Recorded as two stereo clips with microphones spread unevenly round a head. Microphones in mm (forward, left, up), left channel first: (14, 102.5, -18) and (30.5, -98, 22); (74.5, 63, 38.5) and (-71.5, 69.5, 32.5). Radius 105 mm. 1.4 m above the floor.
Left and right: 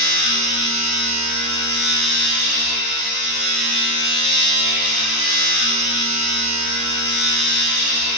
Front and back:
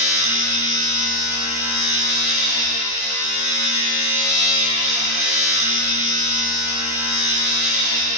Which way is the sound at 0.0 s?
135° left.